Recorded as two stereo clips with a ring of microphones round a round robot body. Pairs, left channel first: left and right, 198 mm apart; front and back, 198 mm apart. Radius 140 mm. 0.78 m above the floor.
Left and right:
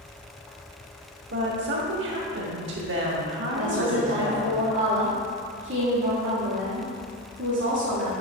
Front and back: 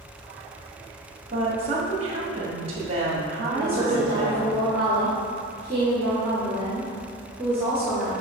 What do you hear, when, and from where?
1.3 s a woman speaking: 115° right, 1.5 m
3.5 s a woman speaking: 85° right, 2 m